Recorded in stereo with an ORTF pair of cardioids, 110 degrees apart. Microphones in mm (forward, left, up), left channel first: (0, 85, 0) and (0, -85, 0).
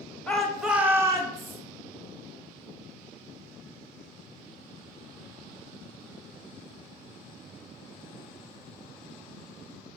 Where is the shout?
10° left, 1.2 m; by 1.6 s 30° right, 1.2 m.